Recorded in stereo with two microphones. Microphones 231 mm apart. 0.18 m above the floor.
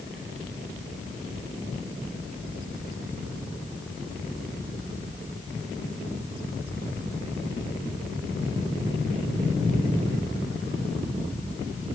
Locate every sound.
Only background noise.